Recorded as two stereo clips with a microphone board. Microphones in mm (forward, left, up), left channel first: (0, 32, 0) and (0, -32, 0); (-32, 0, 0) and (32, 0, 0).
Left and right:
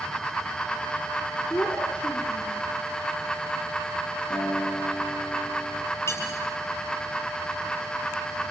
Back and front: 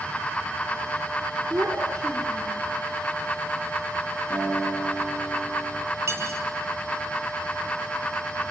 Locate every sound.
1.5 s a child speaking: 55° left, 3.5 m
4.3 s a guitar: 70° left, 8.5 m
6.1 s cutlery clinking: 50° left, 7.5 m